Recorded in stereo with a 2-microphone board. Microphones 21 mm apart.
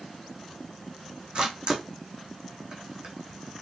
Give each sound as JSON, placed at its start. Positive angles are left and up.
{"t": 1.4, "sound": "a camera shutter", "side_deg": -40, "distance_m": 3.0}